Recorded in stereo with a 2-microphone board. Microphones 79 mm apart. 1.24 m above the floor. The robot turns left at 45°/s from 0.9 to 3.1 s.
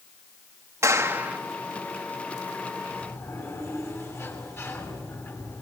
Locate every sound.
0.8 s a clap: 40° right (ahead or behind), 2 m; by 1.4 s 15° right (ahead or behind), 2 m
2.9 s a sliding door: 20° left (ahead or behind), 7 m; by 5.6 s 35° left (ahead or behind), 7 m